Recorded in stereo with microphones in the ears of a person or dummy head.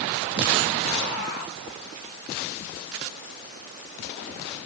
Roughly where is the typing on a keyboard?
I don't hear typing on a keyboard.